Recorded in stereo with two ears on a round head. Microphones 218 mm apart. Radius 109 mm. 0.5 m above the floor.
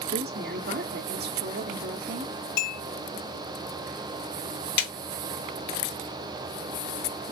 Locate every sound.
0.1 s a woman speaking: 40° right (ahead or behind), 1.1 m
2.6 s a clink: 75° left (ahead or behind), 1.3 m
4.8 s a snare drum: 75° left (ahead or behind), 1.7 m